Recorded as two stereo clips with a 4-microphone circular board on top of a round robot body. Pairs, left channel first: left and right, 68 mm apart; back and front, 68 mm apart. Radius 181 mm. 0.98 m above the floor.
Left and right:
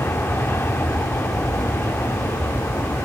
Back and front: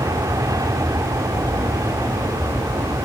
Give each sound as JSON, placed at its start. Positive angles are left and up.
{"t": 0.0, "sound": "an aircraft", "azimuth_deg": 35}